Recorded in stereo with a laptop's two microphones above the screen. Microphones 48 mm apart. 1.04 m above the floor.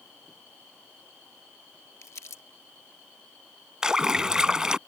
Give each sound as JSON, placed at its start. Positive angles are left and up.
{"t": 2.0, "sound": "crumpling", "side_deg": 80}
{"t": 3.8, "sound": "a splash", "side_deg": -15}